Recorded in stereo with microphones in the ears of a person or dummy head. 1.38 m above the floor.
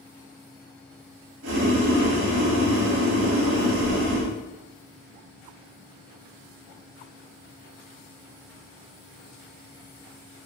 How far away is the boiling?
About 0.8 m.